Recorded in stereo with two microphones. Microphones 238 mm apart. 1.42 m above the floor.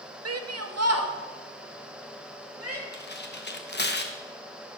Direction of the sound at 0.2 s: 70° right (ahead or behind).